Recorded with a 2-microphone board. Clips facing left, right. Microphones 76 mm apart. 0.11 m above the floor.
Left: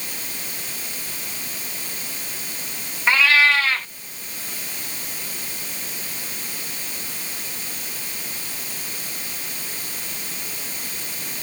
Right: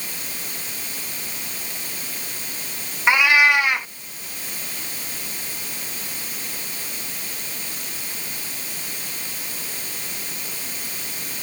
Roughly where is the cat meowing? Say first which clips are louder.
Right 1 dB; centre.